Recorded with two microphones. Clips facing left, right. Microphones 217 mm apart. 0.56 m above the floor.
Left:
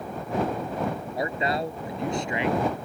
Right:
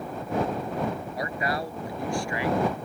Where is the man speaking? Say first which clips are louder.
Left 5 dB; 25° left (ahead or behind); by 2.9 s 20° left (ahead or behind).